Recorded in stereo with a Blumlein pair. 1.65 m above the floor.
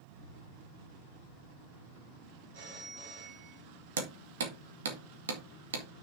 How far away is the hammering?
About 2.0 m.